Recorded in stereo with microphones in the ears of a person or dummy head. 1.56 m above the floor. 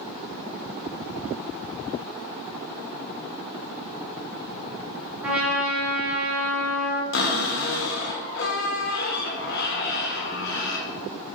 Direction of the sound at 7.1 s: 60° left (ahead or behind).